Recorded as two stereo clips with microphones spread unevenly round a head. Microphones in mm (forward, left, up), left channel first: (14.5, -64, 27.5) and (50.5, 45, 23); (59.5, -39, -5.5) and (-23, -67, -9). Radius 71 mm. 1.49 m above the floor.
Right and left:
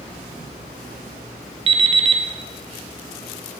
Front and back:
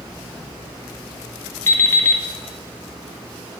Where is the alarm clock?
70° left, 0.6 m.